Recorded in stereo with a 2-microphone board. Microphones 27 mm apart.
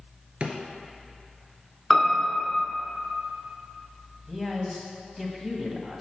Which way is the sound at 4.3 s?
10° right (ahead or behind).